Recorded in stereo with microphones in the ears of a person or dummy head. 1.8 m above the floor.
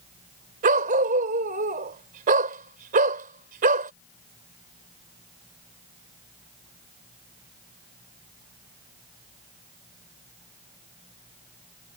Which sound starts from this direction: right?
A dog barking, at 0.6 s.